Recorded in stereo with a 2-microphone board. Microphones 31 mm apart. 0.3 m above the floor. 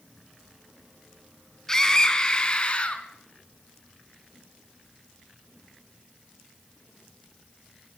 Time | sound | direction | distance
1.7 | a scream | 15° left (ahead or behind) | 3 m